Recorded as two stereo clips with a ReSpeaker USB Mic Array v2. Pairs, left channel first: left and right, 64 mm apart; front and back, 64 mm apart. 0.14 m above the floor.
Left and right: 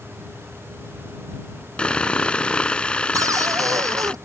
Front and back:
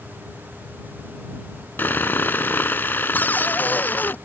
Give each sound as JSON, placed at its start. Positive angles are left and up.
{"t": 1.8, "sound": "sawing", "azimuth_deg": 30}
{"t": 3.1, "sound": "a cupboard door", "azimuth_deg": -60}